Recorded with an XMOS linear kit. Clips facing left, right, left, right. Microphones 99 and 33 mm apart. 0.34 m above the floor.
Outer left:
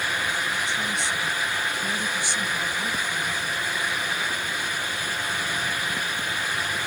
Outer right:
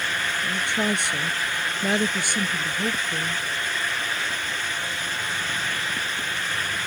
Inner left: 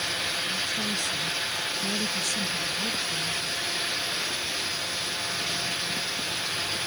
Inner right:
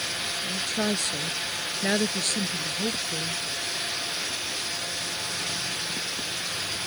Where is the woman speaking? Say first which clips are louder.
Outer right 3 dB, inner right 1 dB; 65° right (ahead or behind); by 3.4 s 50° right (ahead or behind).